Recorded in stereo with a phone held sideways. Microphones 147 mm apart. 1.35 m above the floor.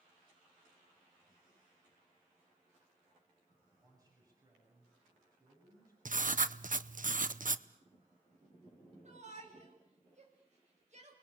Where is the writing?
65° right (ahead or behind), 0.9 m.